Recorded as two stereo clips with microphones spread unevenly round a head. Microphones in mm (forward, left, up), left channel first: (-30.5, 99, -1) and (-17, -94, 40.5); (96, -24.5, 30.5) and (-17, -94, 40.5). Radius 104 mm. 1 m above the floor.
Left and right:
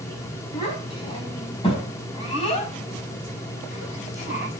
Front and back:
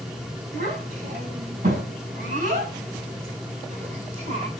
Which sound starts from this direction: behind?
A child speaking, at 0.5 s.